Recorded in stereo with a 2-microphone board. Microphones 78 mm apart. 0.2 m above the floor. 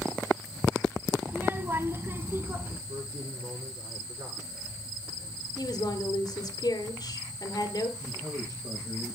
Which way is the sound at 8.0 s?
50° right (ahead or behind).